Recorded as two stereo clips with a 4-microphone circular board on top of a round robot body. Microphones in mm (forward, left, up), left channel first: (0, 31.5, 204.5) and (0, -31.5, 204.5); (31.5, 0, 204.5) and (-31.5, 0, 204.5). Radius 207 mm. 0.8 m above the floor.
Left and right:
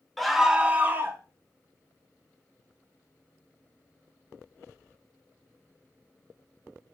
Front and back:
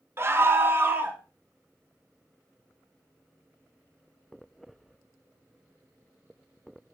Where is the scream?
175° left, 0.9 m; by 1.2 s 130° right, 1.1 m.